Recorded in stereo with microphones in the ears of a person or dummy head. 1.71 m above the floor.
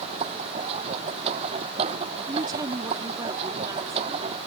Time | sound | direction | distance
0.0 | a machine running | 30° right (ahead or behind) | ?
2.3 | a woman speaking | 15° right (ahead or behind) | ?